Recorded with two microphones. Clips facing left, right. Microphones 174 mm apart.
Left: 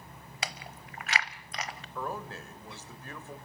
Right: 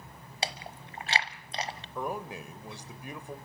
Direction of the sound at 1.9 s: 15° right (ahead or behind).